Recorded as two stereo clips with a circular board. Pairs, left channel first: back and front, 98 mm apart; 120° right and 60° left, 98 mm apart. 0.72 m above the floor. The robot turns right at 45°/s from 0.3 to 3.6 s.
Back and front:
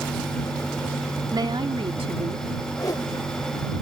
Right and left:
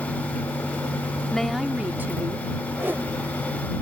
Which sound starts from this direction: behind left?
A whoosh, at 2.8 s.